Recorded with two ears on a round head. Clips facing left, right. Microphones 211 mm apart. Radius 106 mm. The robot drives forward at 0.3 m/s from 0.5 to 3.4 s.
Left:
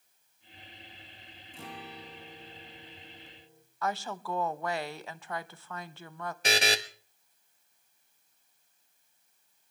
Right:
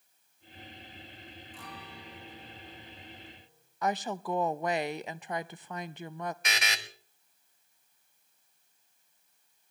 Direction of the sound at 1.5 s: 25° left (ahead or behind).